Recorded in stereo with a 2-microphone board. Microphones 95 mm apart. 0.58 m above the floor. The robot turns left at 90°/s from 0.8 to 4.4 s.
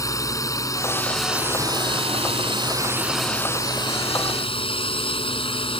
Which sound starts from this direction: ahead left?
A drone, at 0.0 s.